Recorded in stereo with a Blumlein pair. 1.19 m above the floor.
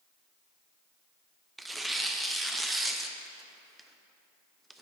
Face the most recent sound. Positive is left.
turn(degrees=-5)